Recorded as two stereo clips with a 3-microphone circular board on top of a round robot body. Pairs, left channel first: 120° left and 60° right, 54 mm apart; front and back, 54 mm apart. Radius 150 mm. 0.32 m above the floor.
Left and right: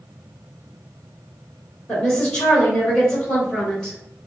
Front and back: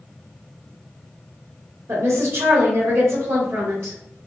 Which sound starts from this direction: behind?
A woman speaking, at 1.9 s.